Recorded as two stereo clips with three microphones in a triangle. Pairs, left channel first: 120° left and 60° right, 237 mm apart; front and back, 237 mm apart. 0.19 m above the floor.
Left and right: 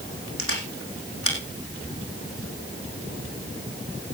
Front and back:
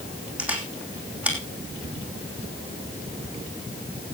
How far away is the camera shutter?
About 3.5 m.